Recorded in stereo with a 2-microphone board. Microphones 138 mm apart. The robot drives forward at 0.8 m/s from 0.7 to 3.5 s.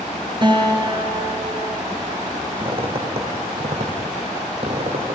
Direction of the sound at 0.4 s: 35° right (ahead or behind).